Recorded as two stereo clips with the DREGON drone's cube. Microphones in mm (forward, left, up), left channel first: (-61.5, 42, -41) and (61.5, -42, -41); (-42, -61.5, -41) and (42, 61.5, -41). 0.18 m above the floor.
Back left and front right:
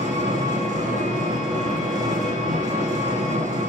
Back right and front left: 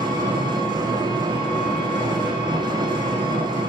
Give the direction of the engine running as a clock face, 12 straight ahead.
12 o'clock.